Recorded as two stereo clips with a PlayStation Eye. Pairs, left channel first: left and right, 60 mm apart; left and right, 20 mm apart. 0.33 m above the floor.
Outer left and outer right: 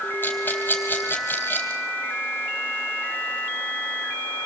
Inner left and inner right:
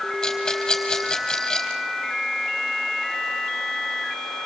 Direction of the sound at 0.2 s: 30° left (ahead or behind).